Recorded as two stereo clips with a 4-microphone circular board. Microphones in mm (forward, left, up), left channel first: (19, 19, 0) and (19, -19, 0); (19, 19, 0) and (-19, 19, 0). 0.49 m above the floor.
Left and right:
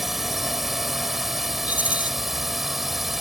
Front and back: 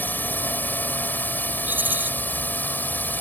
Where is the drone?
5° right.